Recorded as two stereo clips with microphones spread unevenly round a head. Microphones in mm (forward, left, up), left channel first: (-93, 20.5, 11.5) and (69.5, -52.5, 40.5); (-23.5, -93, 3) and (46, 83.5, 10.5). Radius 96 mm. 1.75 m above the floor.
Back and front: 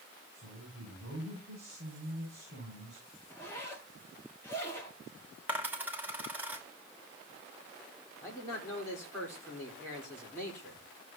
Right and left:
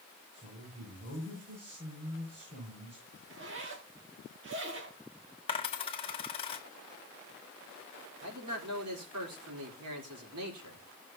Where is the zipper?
75° left, 2 m.